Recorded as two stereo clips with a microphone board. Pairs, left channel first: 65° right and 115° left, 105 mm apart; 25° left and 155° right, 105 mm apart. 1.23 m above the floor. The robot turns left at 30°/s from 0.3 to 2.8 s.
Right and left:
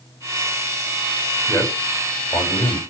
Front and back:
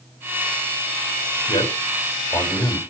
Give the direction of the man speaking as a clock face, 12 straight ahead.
11 o'clock.